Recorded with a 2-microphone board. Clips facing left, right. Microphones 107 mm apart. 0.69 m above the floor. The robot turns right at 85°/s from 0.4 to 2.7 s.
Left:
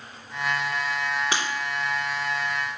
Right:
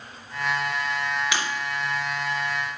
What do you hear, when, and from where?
1.3 s breaking glass: 40° left (ahead or behind), 3 m; by 1.5 s 25° left (ahead or behind), 3 m